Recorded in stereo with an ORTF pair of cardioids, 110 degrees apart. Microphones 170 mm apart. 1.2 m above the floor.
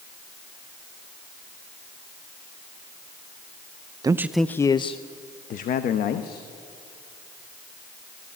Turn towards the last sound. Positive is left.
turn(degrees=65)